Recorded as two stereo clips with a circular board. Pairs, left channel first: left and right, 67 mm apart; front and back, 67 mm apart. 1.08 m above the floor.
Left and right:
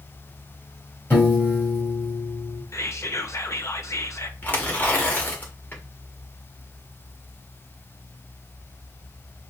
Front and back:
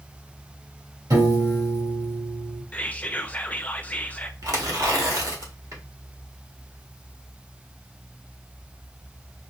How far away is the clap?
I don't hear a clap.